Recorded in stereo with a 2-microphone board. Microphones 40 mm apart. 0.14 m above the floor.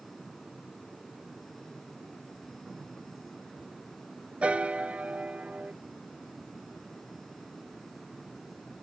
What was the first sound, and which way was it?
A piano, 35° right (ahead or behind).